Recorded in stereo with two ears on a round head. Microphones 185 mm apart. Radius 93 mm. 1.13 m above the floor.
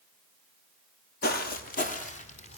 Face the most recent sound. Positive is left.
turn(degrees=30)  # may be behind; listen again after turning